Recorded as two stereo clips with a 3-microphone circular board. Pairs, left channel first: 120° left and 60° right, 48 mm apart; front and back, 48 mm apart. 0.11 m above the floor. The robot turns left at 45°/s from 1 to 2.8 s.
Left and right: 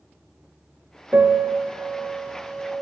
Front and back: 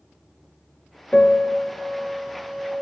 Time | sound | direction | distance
1.1 | a piano | 60° right | 0.5 m